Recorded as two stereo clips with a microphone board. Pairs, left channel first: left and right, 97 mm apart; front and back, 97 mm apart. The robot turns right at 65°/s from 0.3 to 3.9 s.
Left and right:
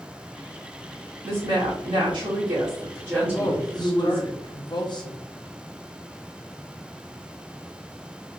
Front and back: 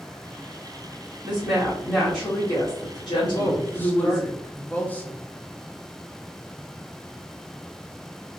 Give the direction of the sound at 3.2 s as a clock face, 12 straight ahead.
11 o'clock.